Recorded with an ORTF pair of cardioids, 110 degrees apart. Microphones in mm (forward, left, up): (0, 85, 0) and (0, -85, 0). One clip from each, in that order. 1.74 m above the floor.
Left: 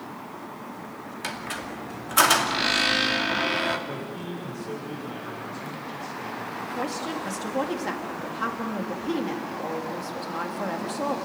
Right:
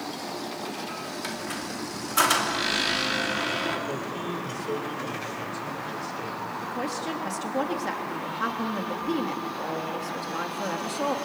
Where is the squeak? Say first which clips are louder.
Left 4 dB; 20° left, 2.5 m.